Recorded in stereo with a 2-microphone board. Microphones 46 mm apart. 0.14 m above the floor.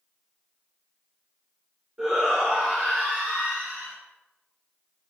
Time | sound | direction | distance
2.0 | a shout | 10° right (ahead or behind) | 1.9 m